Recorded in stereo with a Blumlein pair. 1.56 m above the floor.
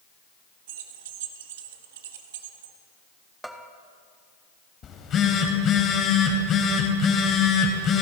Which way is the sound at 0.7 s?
55° right.